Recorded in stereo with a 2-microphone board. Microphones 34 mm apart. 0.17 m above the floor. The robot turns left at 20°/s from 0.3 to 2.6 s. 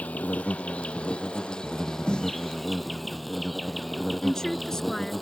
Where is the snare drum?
25° left (ahead or behind); by 2.4 s 30° left (ahead or behind).